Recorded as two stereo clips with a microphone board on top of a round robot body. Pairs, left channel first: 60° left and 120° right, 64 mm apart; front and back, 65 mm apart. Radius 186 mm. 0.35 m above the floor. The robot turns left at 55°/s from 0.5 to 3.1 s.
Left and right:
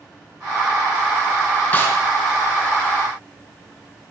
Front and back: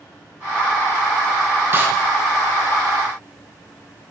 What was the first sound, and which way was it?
A snare drum, 125° left.